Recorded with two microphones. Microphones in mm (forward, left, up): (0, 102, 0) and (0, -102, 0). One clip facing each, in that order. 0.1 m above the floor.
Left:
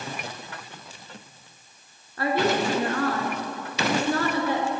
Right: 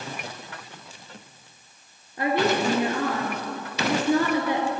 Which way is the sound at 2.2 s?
15° right (ahead or behind).